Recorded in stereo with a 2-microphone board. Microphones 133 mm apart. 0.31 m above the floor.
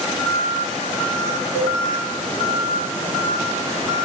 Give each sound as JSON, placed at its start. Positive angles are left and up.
{"t": 1.5, "sound": "a cowbell", "side_deg": 60, "distance_m": 5.0}